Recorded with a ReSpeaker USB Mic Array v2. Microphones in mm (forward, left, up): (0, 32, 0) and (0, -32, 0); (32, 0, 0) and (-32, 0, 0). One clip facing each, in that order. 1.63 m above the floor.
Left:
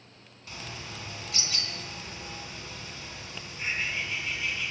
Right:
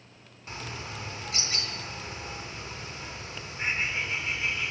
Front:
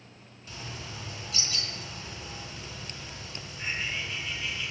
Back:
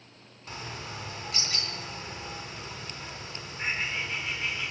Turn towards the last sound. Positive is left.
turn(degrees=-155)